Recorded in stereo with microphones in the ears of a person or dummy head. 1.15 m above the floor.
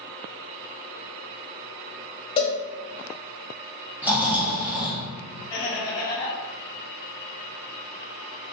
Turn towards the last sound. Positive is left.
turn(degrees=20)  # may be behind; listen again after turning